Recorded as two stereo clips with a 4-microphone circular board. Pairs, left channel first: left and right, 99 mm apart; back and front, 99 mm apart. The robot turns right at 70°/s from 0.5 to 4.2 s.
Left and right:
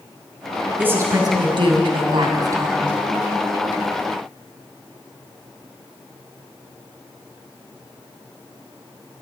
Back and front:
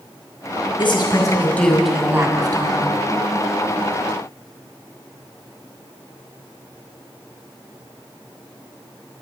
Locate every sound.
0.8 s a woman speaking: 160° right, 2.5 m; by 2.9 s 15° right, 2.5 m